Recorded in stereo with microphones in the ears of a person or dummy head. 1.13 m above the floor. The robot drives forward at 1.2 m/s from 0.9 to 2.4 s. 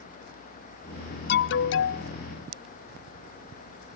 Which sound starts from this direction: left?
An alarm, at 1.3 s.